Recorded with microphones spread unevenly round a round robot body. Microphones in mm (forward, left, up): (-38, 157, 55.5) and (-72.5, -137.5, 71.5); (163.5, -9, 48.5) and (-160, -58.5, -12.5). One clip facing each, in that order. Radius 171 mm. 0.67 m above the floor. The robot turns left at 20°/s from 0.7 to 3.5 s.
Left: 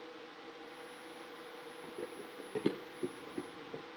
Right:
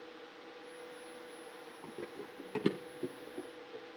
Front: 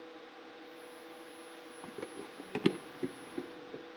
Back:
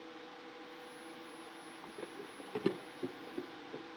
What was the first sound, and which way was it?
Running footsteps, 20° right.